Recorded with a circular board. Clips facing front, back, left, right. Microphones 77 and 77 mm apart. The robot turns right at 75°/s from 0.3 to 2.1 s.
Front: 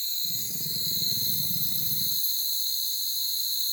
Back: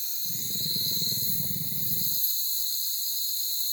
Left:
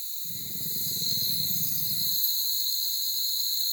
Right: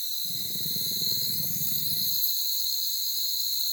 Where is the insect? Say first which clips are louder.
Front 2 dB, right 4 dB; 100° right, 6 m; by 3.7 s 35° left, 6 m.